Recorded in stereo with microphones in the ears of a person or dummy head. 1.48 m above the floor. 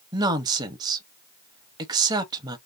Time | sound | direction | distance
0.1 | a woman speaking | 20° right (ahead or behind) | 0.9 m